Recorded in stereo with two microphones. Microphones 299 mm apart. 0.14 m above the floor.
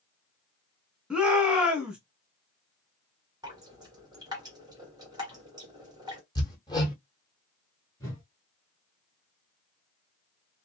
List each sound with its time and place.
1.1 s a shout: 5° right (ahead or behind), 1.2 m
3.4 s dripping: 15° right (ahead or behind), 1.6 m
6.3 s hammering: 15° left (ahead or behind), 1.2 m
8.0 s a whoosh: 10° left (ahead or behind), 1.4 m